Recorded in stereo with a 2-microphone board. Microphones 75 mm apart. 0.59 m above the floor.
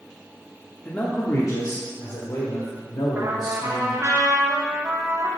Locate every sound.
0.8 s a man speaking: 20° left (ahead or behind), 1.1 m; by 4.0 s 75° left (ahead or behind), 3 m
3.1 s a trumpet: 45° right (ahead or behind), 1.4 m